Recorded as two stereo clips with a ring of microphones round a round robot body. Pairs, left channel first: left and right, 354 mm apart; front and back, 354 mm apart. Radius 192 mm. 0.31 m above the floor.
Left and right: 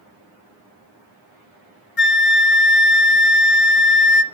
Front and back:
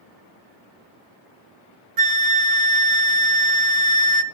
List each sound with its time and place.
2.0 s a flute: 150° left, 0.9 m